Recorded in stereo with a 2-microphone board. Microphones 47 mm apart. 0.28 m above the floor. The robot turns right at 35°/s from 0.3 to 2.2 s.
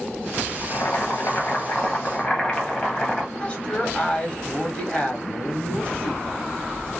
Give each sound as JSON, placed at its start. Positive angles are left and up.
{"t": 0.6, "sound": "boiling", "azimuth_deg": 100, "distance_m": 0.8}
{"t": 3.4, "sound": "a woman speaking", "side_deg": 20, "distance_m": 1.2}